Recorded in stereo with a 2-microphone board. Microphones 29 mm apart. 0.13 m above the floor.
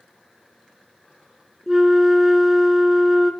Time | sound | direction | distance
1.7 | a flute | 20° right (ahead or behind) | 0.6 m